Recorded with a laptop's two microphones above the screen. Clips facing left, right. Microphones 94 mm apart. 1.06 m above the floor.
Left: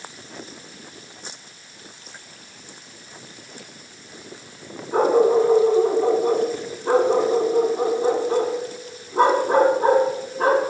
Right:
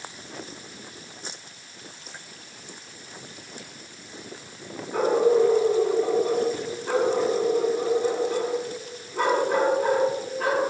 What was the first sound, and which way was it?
A dog barking, 45° left (ahead or behind).